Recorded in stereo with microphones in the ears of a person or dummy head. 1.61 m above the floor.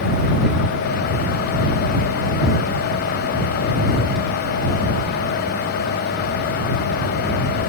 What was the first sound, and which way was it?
Only background noise.